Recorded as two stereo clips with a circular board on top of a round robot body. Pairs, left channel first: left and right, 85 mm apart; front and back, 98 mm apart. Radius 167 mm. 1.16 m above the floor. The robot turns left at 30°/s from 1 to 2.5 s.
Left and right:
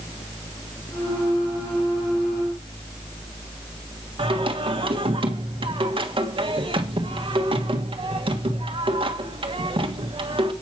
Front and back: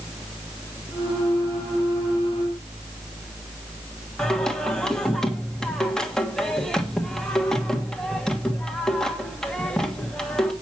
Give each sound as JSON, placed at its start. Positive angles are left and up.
{"t": 4.2, "sound": "singing", "azimuth_deg": -85, "distance_m": 1.7}